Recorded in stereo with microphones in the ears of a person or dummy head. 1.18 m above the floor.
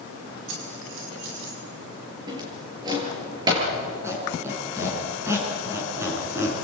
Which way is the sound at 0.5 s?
75° right (ahead or behind).